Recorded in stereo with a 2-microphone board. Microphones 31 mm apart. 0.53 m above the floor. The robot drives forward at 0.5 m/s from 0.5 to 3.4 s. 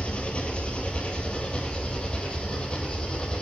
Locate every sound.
0.0 s an engine running: 35° left (ahead or behind), 3 m; by 3.4 s 25° left (ahead or behind), 4.5 m